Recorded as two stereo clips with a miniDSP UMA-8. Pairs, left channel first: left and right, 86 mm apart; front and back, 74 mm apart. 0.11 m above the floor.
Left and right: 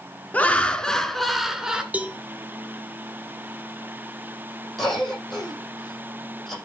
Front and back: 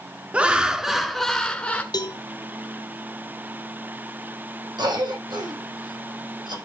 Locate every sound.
0.3 s laughter: 135° left, 1.1 m; by 1.8 s 30° right, 1.1 m
1.9 s a cowbell: 20° right, 1.1 m
4.8 s a cough: 175° left, 5.5 m